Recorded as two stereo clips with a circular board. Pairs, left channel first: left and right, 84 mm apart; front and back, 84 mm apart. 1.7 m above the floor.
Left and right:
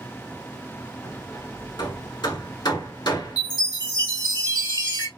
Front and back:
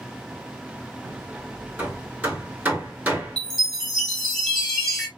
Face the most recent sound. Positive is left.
turn(degrees=85)